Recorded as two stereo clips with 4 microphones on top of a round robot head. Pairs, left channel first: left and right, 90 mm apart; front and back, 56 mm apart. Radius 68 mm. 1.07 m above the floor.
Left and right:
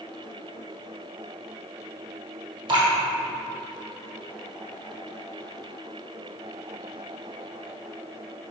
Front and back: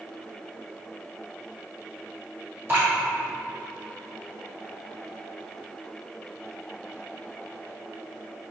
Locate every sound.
2.7 s dripping: 125° right, 1.7 m